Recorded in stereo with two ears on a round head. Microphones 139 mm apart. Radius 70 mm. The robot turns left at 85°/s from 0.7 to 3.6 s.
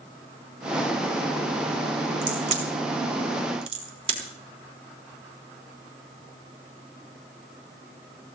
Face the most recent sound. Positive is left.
turn(degrees=-40)  # may be behind; listen again after turning